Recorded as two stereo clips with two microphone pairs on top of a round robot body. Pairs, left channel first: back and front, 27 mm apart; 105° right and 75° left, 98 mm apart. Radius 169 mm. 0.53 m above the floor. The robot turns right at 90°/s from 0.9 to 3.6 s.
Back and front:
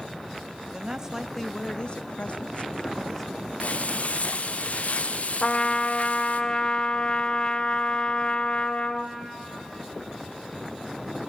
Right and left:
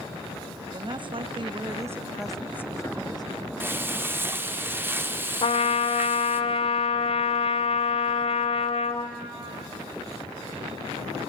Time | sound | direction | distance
0.7 | a woman speaking | 45° left | 0.9 m
3.6 | frying | 145° left | 1.0 m
5.4 | a trumpet | 125° right | 0.9 m